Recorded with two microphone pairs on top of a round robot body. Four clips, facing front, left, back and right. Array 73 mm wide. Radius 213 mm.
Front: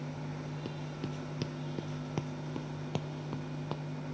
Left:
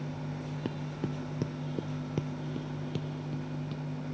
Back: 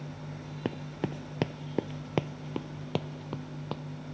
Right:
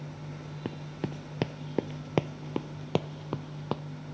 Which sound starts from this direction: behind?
Running footsteps, at 0.7 s.